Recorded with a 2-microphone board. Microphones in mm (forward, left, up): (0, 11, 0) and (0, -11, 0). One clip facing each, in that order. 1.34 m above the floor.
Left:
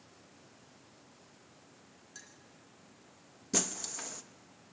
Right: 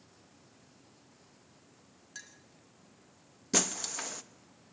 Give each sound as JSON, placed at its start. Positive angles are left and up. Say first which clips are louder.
{"t": 2.1, "sound": "a clink", "louder": "right 5 dB", "side_deg": -30, "distance_m": 1.7}
{"t": 3.5, "sound": "breaking glass", "louder": "right 3 dB", "side_deg": -25, "distance_m": 0.8}